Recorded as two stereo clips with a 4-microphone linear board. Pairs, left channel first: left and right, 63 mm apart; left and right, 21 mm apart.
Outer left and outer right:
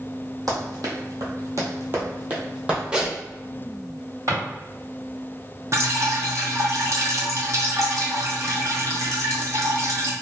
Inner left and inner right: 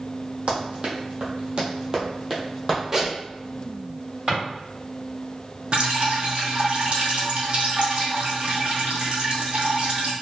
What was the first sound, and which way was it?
Running footsteps, 65° right (ahead or behind).